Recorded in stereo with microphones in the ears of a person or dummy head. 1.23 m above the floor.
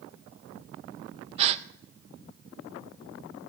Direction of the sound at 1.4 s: 35° right (ahead or behind).